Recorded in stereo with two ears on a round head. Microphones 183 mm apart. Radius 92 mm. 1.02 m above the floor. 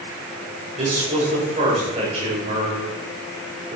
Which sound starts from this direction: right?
A man speaking, at 0.8 s.